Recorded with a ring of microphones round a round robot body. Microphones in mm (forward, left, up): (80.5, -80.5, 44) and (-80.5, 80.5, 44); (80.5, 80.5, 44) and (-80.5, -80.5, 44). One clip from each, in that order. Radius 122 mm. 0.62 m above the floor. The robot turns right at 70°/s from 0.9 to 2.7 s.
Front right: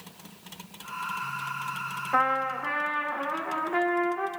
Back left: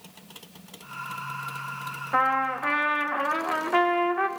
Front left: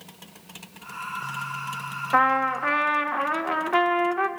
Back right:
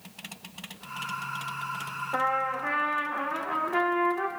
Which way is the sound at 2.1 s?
45° left.